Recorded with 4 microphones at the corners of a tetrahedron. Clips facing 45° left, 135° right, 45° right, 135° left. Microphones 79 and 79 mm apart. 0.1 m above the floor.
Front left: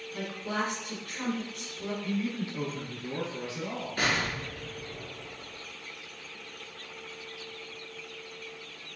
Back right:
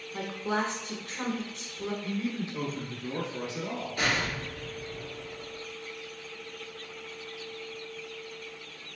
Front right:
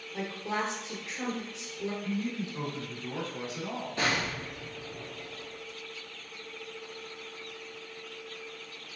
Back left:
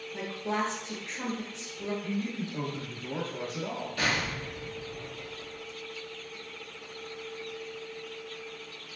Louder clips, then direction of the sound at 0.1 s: Back right 3 dB, back left 1 dB; 130° right.